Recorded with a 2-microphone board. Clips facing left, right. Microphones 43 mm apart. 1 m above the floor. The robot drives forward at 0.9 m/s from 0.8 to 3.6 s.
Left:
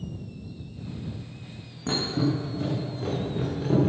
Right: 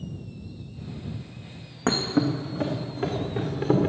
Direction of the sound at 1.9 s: 60° right (ahead or behind).